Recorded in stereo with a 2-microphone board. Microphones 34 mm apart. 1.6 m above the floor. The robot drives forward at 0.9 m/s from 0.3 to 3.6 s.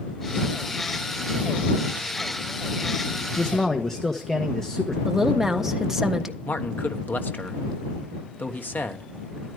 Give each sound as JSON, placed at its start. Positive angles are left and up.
{"t": 3.4, "sound": "a man speaking", "side_deg": 20, "distance_m": 1.1}
{"t": 5.0, "sound": "a woman speaking", "side_deg": -10, "distance_m": 1.4}
{"t": 6.5, "sound": "a man speaking", "side_deg": 75, "distance_m": 1.4}